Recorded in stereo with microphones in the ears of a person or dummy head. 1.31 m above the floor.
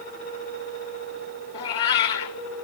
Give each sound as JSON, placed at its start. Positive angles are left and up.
{"t": 1.5, "sound": "a cat meowing", "side_deg": 35, "distance_m": 2.0}